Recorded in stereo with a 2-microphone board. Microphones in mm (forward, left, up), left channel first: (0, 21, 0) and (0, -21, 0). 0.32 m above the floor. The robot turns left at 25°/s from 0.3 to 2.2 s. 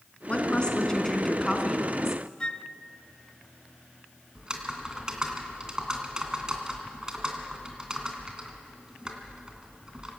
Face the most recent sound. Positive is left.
turn(degrees=-20)  # may be behind; listen again after turning